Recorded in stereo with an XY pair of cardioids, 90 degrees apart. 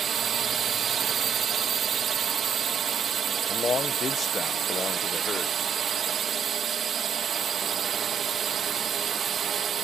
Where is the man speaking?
50° left.